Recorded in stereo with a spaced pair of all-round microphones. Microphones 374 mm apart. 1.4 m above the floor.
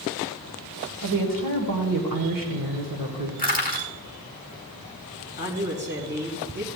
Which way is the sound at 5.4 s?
60° right (ahead or behind).